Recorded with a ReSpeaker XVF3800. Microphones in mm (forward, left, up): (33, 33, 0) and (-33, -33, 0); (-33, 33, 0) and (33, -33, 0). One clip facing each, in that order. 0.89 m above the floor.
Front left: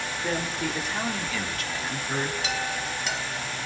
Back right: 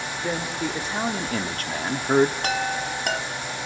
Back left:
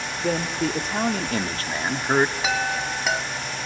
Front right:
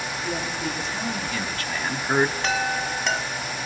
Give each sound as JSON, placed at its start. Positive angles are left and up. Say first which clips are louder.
{"t": 0.2, "sound": "a man speaking", "louder": "back right 2 dB, back left 7 dB", "azimuth_deg": 140, "distance_m": 2.5}
{"t": 2.4, "sound": "a chime", "louder": "back right 4 dB, even", "azimuth_deg": -140, "distance_m": 1.4}